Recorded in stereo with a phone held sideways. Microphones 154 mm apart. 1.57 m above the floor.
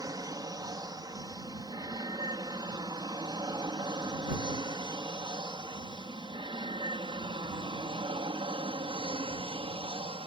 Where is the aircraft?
20° right (ahead or behind); by 10.3 s 30° right (ahead or behind).